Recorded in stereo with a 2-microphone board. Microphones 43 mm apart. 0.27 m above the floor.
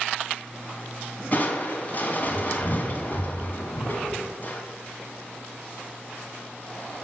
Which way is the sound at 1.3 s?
40° left (ahead or behind).